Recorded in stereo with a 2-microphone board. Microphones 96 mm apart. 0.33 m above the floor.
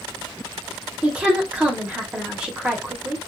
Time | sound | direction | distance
1.0 | a woman speaking | 10° right (ahead or behind) | 1.0 m